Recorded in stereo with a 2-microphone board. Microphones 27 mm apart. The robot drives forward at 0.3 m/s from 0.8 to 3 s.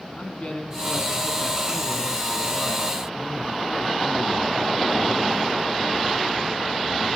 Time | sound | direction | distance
0.2 | a man speaking | 45° left (ahead or behind) | 1.8 m